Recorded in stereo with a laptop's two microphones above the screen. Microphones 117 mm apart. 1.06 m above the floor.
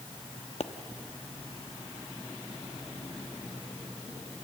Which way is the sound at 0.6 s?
65° left (ahead or behind).